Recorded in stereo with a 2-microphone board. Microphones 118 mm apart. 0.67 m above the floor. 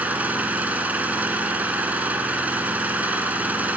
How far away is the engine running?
About 1.6 m.